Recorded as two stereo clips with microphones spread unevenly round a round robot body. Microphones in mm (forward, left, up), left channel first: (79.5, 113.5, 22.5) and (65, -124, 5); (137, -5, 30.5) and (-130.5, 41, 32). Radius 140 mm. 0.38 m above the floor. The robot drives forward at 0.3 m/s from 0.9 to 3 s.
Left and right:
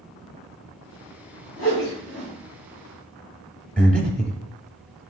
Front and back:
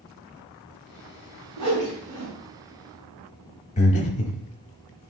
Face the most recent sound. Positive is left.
turn(degrees=-5)